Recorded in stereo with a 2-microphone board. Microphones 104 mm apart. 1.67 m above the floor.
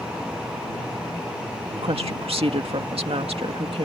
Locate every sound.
1.8 s a woman speaking: 65° right (ahead or behind)